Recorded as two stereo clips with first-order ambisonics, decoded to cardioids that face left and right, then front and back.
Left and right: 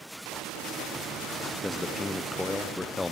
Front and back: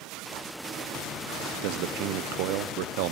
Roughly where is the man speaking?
Behind.